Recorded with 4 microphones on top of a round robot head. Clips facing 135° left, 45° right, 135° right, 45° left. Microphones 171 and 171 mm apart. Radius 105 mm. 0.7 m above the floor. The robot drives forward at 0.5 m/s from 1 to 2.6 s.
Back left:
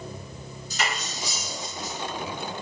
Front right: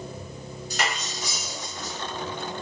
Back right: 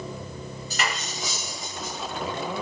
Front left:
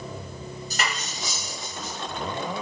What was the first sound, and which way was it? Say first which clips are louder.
Cutlery clinking: front right 1 dB, back right 1 dB; 10° right.